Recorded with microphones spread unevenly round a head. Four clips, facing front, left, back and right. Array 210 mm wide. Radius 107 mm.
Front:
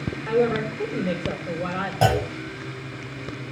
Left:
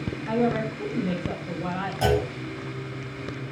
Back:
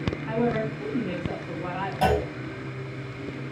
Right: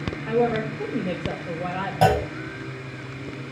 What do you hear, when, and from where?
0.3 s a woman speaking: 35° right, 6 m
2.0 s a clunk: 55° right, 5 m